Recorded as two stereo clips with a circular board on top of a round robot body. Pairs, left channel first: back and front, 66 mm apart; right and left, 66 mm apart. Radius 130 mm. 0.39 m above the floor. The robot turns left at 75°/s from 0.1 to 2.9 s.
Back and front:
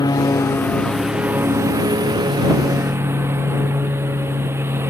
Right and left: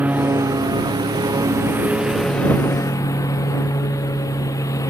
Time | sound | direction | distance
0.0 | a lawn mower | 155° left | ?